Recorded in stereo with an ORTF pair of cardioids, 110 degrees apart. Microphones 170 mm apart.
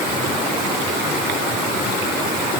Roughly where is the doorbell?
I don't hear a doorbell.